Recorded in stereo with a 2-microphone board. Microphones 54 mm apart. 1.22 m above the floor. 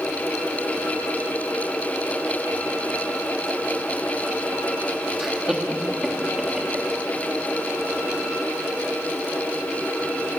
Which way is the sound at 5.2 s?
10° right (ahead or behind).